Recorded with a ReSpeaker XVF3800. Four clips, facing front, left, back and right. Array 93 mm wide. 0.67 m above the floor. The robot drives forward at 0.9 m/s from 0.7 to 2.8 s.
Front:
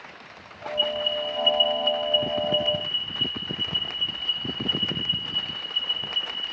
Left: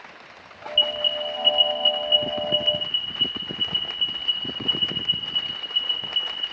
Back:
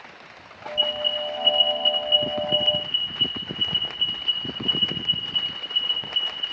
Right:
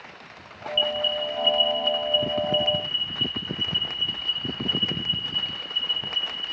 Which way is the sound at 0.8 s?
115° left.